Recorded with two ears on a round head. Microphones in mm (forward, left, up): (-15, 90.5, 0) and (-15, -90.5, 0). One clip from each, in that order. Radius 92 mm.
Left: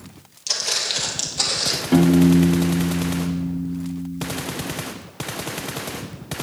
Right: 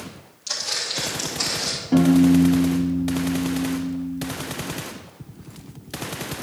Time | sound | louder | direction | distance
0.5 | footsteps | left 3 dB | 30° left (ahead or behind) | 1.9 m
1.9 | a piano | right 1 dB | 35° left (ahead or behind) | 1.1 m